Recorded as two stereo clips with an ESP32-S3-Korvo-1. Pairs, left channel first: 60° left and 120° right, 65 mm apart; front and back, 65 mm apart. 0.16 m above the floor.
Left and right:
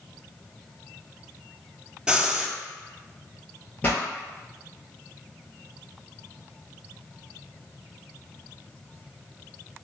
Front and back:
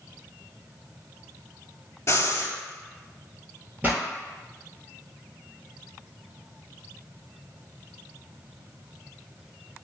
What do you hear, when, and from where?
2.1 s breathing: 40° right, 0.5 m
3.8 s a pop: 120° left, 1.2 m